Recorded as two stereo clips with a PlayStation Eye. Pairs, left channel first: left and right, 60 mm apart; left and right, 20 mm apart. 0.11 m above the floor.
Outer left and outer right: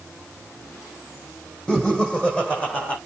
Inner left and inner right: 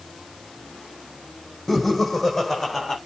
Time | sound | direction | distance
1.7 | laughter | 15° left (ahead or behind) | 5.5 m